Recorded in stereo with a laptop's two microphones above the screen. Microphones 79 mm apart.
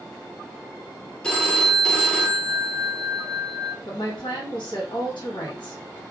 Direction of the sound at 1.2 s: 10° left (ahead or behind).